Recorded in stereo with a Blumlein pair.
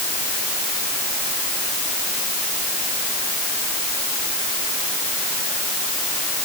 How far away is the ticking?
I don't hear ticking.